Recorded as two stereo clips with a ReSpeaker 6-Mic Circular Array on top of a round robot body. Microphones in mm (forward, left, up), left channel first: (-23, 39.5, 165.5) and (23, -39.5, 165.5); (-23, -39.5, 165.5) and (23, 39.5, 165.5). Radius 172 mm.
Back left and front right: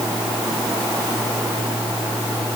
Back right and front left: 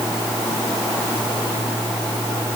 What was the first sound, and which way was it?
Only background noise.